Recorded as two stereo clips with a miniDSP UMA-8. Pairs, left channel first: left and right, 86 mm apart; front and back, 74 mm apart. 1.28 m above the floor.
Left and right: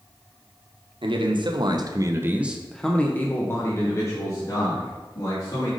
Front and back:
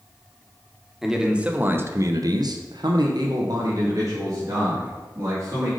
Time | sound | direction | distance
1.0 | a man speaking | 95° right | 1.3 m